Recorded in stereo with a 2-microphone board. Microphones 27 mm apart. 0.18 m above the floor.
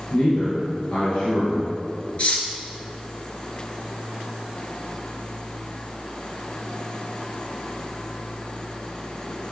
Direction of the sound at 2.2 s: 45° left (ahead or behind).